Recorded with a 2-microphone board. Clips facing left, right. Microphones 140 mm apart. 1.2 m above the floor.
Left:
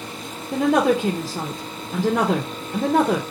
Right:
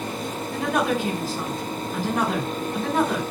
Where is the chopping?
I don't hear chopping.